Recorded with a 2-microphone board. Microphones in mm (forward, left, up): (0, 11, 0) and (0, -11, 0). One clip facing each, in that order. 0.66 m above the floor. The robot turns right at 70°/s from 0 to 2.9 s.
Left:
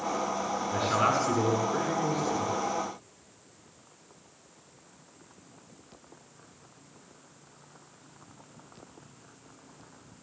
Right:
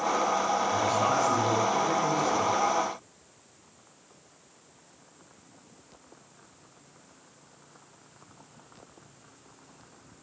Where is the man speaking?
85° left, 7.5 m; by 2.5 s 145° right, 7.5 m.